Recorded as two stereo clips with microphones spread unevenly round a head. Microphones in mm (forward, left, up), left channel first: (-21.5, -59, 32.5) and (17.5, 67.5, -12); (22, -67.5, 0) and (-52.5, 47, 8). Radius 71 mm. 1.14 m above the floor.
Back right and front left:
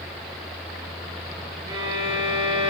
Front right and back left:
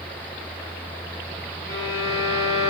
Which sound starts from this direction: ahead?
A violin, at 1.7 s.